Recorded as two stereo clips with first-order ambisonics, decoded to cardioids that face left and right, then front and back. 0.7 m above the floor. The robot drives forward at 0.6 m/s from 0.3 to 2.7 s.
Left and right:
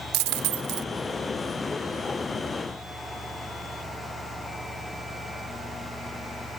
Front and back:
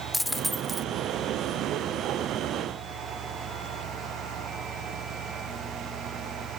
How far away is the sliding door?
No sliding door in this recording.